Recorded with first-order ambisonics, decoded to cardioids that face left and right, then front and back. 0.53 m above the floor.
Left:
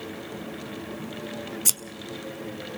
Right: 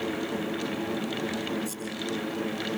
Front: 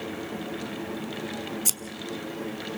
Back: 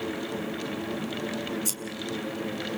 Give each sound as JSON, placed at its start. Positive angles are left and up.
{"t": 1.6, "sound": "scissors", "azimuth_deg": 70, "distance_m": 0.9}